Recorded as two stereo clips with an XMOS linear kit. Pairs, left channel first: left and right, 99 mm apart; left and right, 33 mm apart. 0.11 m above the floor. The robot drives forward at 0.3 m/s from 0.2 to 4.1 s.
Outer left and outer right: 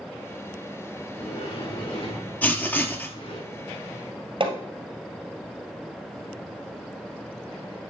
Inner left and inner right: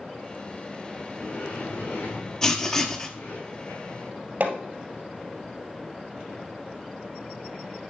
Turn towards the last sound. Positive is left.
turn(degrees=-55)  # may be behind; listen again after turning